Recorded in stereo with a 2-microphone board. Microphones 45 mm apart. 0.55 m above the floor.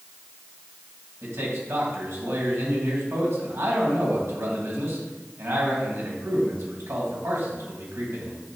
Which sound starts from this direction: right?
A man speaking, at 1.2 s.